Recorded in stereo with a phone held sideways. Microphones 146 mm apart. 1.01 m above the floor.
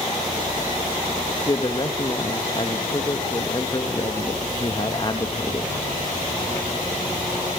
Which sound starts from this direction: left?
A man speaking, at 1.5 s.